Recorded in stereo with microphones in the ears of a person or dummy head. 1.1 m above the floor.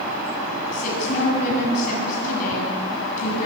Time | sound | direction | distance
0.7 | a woman speaking | 50° left (ahead or behind) | 8 m